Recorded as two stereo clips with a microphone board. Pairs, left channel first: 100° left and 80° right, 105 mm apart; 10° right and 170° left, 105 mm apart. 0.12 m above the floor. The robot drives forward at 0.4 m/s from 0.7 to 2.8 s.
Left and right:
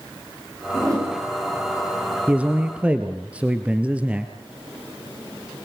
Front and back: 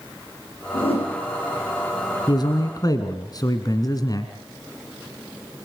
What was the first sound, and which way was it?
A whoosh, 25° right.